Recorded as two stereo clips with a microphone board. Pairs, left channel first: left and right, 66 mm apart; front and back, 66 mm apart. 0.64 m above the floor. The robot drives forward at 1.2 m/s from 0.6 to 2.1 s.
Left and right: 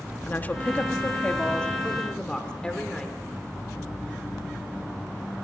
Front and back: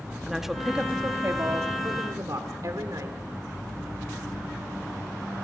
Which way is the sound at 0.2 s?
100° left.